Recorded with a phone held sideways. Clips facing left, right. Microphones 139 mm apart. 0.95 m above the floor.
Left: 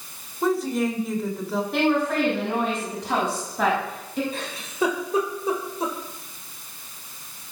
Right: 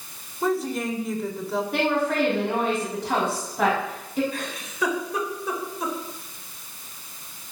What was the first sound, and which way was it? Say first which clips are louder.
A woman speaking: left 2 dB; centre (ahead or behind).